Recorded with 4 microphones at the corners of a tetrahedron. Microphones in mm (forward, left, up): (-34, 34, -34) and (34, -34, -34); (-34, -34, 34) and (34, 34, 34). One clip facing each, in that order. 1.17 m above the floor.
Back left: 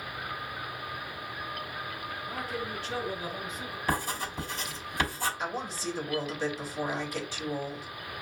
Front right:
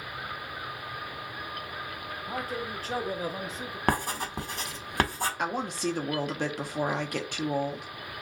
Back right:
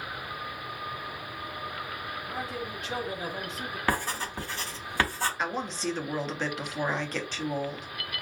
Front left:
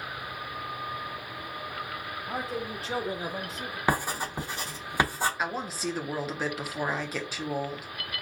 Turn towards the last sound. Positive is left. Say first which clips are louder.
# front right 4 dB, even
turn(degrees=-40)